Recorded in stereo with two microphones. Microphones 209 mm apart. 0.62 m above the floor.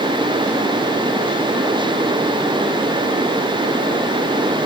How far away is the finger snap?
I don't hear a finger snap.